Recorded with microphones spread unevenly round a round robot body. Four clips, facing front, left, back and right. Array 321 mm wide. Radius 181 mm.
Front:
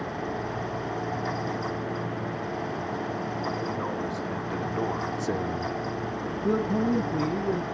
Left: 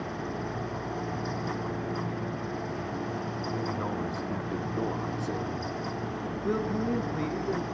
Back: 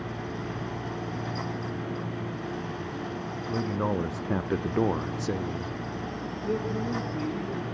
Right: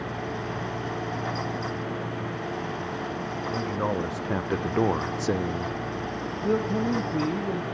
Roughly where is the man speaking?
Behind.